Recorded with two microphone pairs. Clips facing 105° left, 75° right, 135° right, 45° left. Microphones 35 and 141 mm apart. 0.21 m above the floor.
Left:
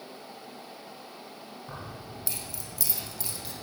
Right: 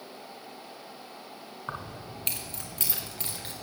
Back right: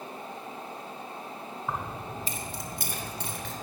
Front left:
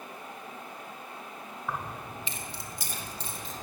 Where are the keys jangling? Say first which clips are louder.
Right 5 dB, back right 2 dB; 70° right, 1.5 m; by 3.5 s 125° right, 2.5 m.